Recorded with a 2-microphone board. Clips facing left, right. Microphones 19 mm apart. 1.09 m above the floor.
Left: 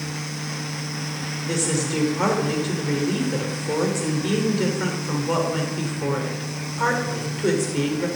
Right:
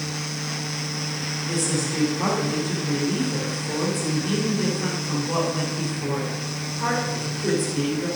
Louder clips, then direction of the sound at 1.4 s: Left 2 dB; 55° left (ahead or behind).